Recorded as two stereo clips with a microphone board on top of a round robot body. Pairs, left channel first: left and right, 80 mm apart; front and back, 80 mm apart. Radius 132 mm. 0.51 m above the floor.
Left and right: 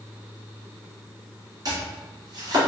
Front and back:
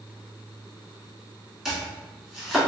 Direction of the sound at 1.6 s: 95° right.